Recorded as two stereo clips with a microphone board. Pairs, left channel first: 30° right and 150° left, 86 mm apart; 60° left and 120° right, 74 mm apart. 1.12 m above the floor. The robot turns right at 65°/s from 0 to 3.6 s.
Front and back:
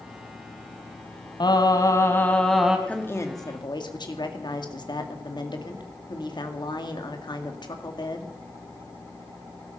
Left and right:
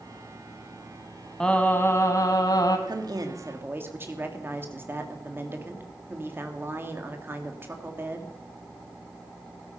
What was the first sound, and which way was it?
Singing, 20° right.